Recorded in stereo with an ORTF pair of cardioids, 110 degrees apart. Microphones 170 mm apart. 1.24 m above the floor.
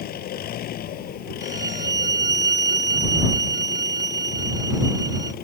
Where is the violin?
20° right.